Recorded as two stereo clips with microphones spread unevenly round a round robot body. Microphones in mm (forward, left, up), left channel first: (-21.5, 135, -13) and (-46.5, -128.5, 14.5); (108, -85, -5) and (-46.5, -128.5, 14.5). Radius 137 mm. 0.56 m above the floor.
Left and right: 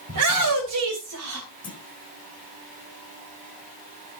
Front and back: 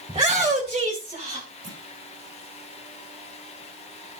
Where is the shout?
110° right, 3 m; by 1.5 s 115° right, 2.5 m.